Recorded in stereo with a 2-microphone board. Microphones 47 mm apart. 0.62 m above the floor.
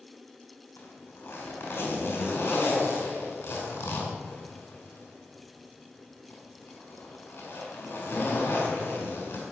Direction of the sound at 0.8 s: 50° left (ahead or behind).